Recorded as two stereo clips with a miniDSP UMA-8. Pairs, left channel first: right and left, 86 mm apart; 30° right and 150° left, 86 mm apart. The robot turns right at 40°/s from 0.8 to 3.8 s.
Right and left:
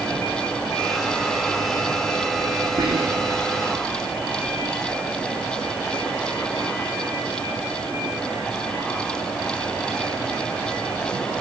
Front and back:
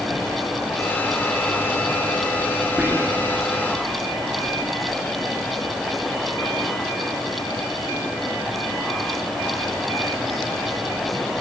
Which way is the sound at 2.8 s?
75° left.